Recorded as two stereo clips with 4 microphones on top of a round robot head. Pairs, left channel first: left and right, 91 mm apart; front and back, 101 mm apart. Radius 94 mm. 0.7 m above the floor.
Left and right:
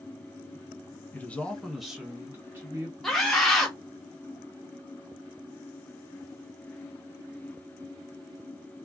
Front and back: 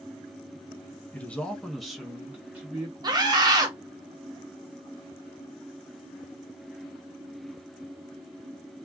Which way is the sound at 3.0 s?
175° left.